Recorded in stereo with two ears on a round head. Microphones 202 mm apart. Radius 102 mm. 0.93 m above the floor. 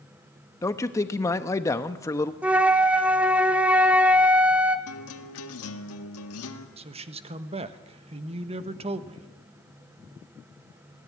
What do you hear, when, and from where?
0.6 s a man speaking: 15° left (ahead or behind), 1.0 m
2.4 s a flute: 5° right (ahead or behind), 1.0 m
4.9 s a guitar: 70° left (ahead or behind), 1.9 m
6.8 s a man speaking: 30° right (ahead or behind), 1.3 m